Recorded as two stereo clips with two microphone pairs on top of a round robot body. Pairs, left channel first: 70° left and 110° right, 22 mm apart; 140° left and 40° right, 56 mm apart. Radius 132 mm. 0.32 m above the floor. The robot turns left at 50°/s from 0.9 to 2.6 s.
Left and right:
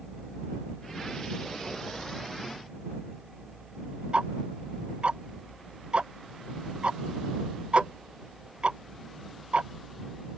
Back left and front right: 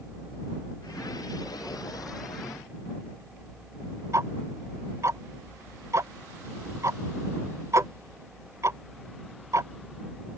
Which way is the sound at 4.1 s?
70° right.